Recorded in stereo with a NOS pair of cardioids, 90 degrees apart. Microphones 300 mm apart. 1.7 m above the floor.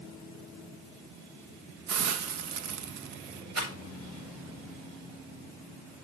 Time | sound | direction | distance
1.9 | a hiss | 65° right | 1.2 m
3.5 | a rattle | 55° right | 7.5 m